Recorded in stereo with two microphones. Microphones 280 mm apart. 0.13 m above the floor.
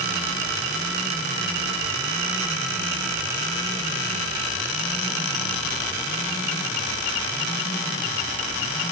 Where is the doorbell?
I don't hear a doorbell.